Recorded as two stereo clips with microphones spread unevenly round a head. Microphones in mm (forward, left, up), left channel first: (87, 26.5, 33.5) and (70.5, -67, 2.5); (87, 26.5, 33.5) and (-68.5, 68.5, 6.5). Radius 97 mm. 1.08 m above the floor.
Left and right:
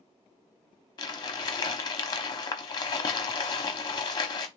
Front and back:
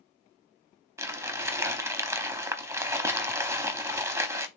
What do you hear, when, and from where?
1.0 s crumpling: 90° left, 0.8 m